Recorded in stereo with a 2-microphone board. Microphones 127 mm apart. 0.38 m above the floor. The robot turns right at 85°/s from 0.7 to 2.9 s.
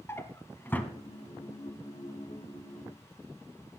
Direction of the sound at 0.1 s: 20° left (ahead or behind).